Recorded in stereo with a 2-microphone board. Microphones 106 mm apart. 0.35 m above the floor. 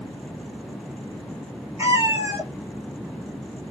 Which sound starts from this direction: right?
A cat meowing, at 1.8 s.